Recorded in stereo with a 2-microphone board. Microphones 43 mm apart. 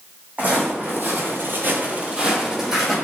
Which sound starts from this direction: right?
Footsteps, at 0.4 s.